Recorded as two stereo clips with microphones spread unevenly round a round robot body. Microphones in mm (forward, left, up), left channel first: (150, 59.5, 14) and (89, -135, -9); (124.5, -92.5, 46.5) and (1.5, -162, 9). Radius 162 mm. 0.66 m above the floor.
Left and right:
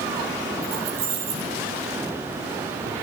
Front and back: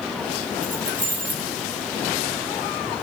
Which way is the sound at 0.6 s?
135° right.